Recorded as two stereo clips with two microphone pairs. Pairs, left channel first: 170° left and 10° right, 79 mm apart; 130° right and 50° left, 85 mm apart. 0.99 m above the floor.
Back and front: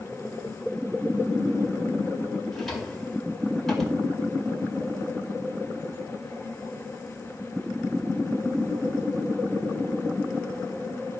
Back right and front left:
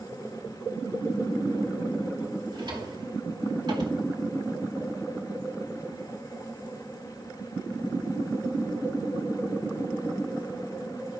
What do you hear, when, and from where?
2.5 s a drawer: 85° left, 2 m